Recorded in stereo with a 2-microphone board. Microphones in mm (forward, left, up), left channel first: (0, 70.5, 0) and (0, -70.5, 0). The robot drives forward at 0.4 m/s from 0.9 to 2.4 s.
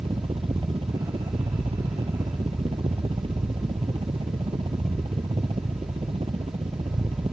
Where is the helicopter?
40° right (ahead or behind).